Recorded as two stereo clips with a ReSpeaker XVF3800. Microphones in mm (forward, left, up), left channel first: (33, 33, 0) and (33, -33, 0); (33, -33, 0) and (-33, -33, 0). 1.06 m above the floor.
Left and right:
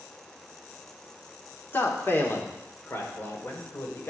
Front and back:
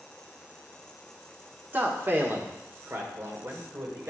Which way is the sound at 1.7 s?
130° left.